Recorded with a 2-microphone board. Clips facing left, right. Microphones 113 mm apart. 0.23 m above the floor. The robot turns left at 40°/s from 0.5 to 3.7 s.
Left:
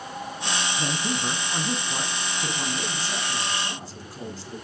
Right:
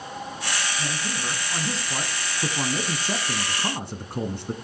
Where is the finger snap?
No finger snap in this recording.